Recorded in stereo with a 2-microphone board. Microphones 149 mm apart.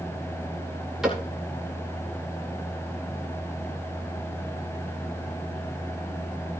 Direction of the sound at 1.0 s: 5° right (ahead or behind).